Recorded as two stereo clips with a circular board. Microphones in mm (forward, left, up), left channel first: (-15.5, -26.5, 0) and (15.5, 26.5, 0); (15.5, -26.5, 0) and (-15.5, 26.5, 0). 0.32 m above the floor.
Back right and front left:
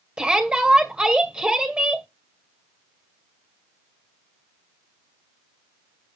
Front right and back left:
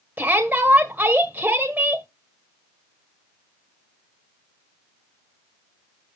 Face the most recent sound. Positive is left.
turn(degrees=115)